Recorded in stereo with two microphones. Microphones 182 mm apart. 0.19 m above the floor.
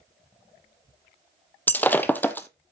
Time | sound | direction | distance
1.7 | breaking glass | 10° left (ahead or behind) | 0.9 m